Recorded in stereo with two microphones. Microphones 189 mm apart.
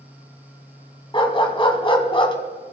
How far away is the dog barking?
About 1.5 m.